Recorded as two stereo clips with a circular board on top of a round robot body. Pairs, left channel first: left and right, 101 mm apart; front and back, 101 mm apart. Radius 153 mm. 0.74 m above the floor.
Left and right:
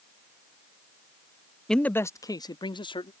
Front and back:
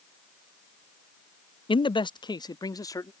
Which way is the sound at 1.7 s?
5° left.